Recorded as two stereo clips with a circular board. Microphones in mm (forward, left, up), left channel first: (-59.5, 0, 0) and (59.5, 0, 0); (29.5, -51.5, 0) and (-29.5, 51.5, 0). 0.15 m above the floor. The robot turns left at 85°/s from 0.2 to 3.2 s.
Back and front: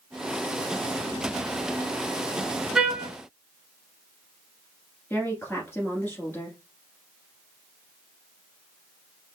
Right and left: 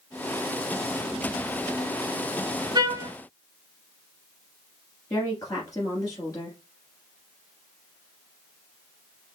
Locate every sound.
2.8 s a trumpet: 85° left, 0.9 m; by 3.1 s 55° left, 0.9 m
5.1 s a woman speaking: 110° right, 2 m